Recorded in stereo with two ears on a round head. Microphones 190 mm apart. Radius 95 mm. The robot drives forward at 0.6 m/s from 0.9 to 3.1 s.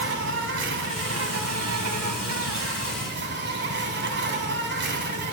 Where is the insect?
55° right (ahead or behind), 1.2 m.